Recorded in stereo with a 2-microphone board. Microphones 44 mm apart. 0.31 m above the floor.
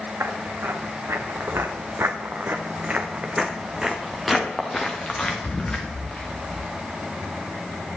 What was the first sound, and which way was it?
Footsteps, 80° right.